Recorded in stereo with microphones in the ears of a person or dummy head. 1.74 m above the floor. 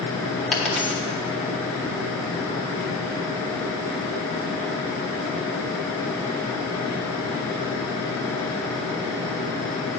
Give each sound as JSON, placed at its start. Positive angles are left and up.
{"t": 0.5, "sound": "a dropped coin", "side_deg": 0, "distance_m": 1.1}